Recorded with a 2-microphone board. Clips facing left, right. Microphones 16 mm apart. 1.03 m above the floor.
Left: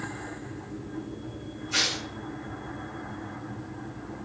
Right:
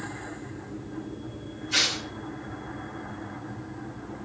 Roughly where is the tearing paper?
Right.